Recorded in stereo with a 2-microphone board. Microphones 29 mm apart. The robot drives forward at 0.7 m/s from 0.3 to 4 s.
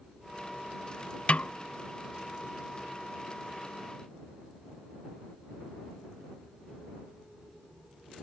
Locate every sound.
1.3 s a snare drum: 45° left (ahead or behind); by 1.5 s 60° left (ahead or behind)